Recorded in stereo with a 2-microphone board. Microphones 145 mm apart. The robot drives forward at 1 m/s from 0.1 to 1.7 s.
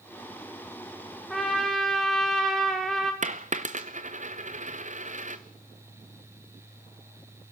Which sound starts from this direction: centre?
A trumpet, at 1.3 s.